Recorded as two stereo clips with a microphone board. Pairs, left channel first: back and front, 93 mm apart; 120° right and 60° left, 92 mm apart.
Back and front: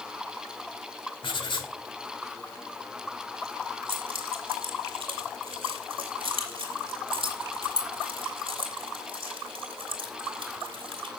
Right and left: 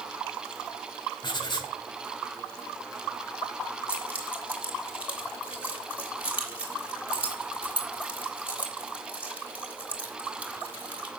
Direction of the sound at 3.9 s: 15° right.